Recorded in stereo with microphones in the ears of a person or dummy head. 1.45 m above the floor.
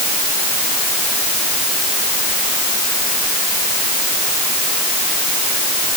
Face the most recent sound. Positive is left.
No sound to turn to.